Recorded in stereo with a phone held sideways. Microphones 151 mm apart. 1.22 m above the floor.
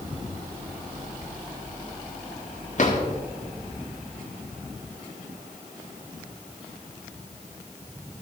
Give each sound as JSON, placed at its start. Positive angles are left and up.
{"t": 2.8, "sound": "a drawer", "side_deg": 55, "distance_m": 1.7}